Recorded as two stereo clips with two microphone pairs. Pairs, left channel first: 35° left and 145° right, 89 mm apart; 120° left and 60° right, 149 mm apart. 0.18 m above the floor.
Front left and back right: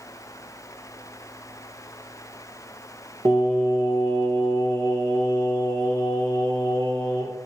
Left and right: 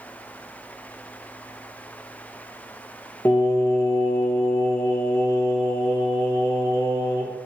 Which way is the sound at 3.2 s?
170° right.